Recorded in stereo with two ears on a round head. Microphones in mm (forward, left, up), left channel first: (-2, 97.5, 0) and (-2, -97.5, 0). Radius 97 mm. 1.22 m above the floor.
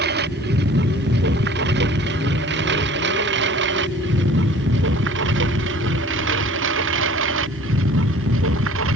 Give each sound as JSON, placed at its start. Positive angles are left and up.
{"t": 0.0, "sound": "a lawn mower", "side_deg": -45}